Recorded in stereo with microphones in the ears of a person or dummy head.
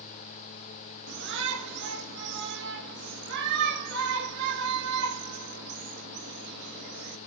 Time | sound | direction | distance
1.1 | a shout | 55° right (ahead or behind) | 1.7 m